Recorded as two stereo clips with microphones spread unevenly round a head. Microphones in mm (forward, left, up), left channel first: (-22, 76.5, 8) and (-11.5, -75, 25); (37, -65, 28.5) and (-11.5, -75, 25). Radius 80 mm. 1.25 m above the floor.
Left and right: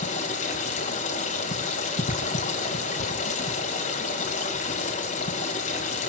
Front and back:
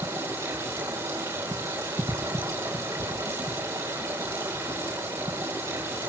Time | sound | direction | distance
0.0 | running water | 135° left | 6 m